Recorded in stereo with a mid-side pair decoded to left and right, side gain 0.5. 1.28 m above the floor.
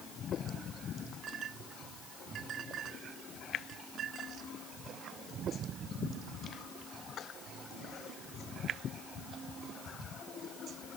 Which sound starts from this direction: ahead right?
A clink, at 1.2 s.